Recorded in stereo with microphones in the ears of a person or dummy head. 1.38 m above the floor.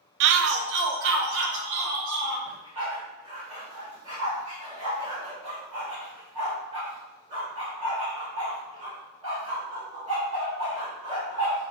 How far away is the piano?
I don't hear a piano.